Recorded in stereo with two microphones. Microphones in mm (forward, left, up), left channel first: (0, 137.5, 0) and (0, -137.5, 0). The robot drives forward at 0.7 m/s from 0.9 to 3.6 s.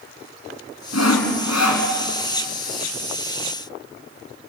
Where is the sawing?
65° left (ahead or behind), 3 m; by 1.9 s 75° left (ahead or behind), 2.5 m.